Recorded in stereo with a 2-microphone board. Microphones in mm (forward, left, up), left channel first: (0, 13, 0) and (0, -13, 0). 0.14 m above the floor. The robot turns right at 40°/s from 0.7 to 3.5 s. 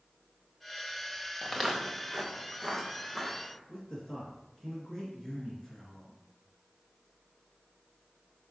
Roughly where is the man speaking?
Centre.